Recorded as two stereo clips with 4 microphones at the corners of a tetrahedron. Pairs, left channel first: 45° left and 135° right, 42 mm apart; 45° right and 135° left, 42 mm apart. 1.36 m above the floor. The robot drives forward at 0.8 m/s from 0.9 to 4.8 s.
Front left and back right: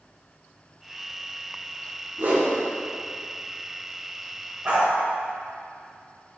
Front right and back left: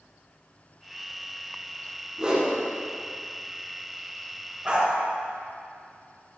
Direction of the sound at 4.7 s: 175° right.